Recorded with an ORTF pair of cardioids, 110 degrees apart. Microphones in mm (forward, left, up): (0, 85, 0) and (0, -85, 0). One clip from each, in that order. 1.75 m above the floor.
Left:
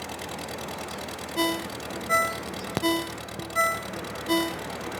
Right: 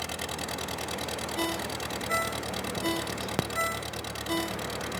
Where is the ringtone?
40° left.